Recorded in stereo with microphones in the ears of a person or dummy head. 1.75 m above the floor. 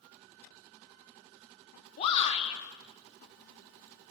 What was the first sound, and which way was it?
A shout, 35° left (ahead or behind).